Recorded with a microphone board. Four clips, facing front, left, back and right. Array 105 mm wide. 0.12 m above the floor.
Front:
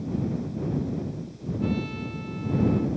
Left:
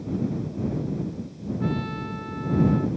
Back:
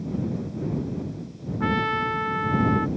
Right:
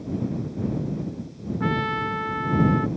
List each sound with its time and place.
1.6 s a trumpet: 150° right